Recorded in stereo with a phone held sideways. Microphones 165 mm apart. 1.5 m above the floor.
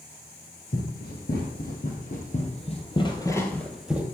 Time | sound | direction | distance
0.7 | running footsteps | 65° left (ahead or behind) | 4 m